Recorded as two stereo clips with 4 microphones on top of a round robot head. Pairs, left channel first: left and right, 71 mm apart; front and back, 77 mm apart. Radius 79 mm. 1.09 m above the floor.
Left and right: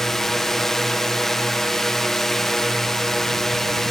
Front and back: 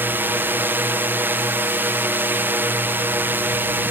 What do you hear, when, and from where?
0.0 s a drone: 170° left